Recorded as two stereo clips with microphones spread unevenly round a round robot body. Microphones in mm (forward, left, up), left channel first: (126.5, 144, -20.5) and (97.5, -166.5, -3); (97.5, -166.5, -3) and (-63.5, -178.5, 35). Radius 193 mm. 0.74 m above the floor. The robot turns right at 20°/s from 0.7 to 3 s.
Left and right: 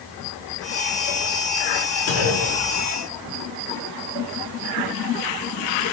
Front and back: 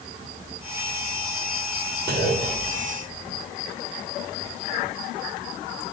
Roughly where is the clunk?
Left.